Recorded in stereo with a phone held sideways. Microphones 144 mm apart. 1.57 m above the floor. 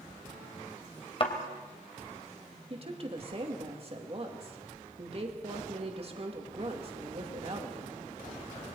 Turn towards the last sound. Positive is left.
turn(degrees=-45)  # may be behind; listen again after turning